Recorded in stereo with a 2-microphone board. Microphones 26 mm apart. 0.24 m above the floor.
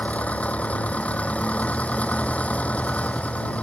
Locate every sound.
0.0 s an engine running: 70° left (ahead or behind)